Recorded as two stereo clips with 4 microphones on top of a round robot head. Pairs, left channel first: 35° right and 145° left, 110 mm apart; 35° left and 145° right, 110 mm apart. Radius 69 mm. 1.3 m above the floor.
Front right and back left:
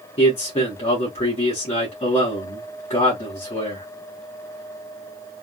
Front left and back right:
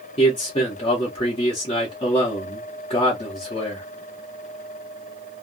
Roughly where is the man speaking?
Ahead.